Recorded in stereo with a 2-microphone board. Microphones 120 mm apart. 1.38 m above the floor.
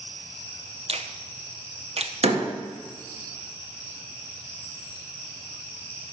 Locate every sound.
0.9 s a finger snap: 55° right (ahead or behind), 0.6 m
2.2 s a door slam: 60° right (ahead or behind), 1.7 m